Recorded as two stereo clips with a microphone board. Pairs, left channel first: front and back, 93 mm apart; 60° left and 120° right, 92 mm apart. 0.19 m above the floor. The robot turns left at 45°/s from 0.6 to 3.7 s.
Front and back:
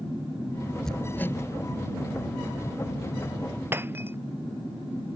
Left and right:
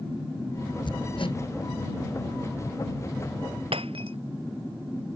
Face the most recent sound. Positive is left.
turn(degrees=-115)